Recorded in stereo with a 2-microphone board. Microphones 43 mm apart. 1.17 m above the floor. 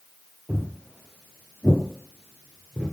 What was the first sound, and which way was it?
Footsteps, 5° left (ahead or behind).